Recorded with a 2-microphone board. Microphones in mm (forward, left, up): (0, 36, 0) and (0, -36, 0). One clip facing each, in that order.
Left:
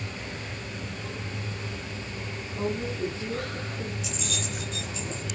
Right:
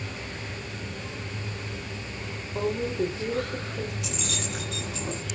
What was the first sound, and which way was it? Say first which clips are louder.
A woman speaking: right 3 dB; 80° right.